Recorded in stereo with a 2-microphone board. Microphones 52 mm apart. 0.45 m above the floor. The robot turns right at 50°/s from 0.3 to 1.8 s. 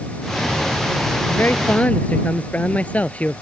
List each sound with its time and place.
1.3 s a man speaking: 55° left (ahead or behind); by 3.4 s 30° left (ahead or behind)